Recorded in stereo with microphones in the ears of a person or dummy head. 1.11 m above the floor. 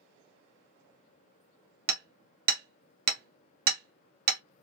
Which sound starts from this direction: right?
Hammering, at 1.9 s.